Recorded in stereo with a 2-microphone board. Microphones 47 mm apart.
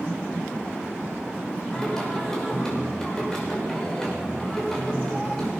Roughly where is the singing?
Centre.